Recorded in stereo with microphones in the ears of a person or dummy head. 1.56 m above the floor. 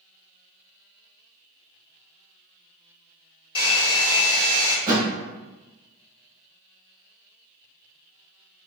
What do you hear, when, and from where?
3.5 s a hair dryer: 25° left (ahead or behind), 1.1 m
4.9 s a thud: 25° right (ahead or behind), 1.0 m